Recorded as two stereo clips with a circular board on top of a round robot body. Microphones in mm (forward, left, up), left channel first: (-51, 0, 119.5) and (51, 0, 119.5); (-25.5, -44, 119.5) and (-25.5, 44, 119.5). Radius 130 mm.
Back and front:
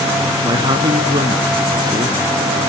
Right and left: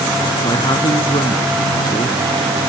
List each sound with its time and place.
0.4 s a man speaking: 50° right